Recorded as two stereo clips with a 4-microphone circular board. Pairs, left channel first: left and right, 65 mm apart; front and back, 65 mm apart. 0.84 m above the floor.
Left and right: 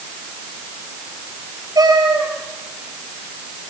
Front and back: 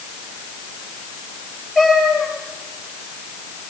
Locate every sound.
1.8 s a cat meowing: 95° right, 8.5 m